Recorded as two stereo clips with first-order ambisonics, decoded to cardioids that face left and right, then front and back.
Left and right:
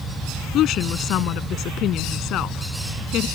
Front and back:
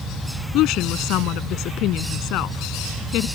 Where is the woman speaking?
40° left.